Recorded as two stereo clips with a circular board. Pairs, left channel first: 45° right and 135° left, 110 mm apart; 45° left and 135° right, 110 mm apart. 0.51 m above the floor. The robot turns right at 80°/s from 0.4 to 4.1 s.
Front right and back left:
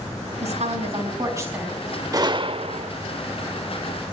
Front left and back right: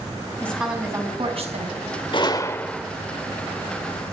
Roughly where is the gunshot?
Left.